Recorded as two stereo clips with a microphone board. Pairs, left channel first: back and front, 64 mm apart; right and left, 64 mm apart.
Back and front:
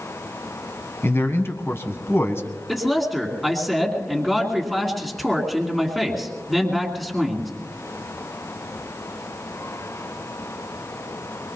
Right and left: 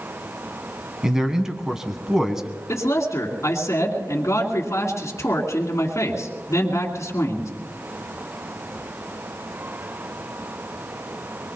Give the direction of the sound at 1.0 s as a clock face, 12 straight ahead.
6 o'clock.